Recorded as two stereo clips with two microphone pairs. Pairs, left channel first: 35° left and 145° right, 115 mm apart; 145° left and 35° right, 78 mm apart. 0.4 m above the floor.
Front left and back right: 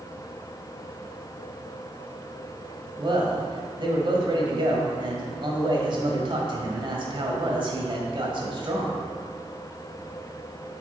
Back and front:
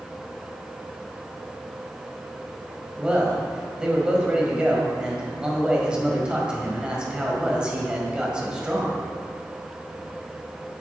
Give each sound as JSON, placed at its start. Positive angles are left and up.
{"t": 3.0, "sound": "a man speaking", "azimuth_deg": -110, "distance_m": 2.0}